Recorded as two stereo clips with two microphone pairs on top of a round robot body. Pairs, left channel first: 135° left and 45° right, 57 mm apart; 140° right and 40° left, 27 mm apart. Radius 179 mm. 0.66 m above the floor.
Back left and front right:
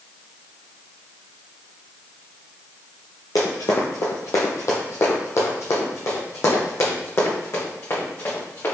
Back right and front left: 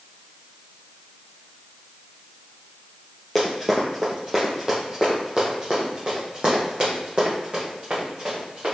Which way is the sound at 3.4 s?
135° left.